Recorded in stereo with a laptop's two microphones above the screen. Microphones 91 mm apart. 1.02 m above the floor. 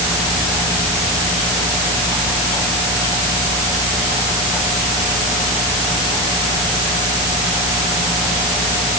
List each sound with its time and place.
Only background noise.